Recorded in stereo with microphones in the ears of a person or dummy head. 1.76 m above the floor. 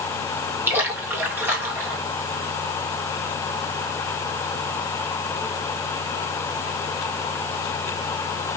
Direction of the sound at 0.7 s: 15° right (ahead or behind).